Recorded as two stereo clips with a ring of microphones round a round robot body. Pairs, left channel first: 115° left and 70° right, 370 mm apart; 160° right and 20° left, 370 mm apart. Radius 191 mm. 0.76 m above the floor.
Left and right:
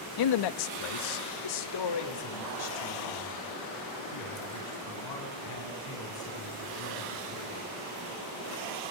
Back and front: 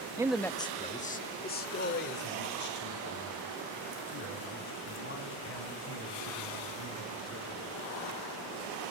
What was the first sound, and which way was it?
A man speaking, 100° left.